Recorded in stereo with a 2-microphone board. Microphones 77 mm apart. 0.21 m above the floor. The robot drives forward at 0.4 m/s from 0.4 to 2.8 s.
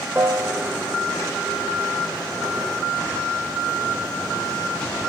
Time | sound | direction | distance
0.1 | a piano | 25° right (ahead or behind) | 0.7 m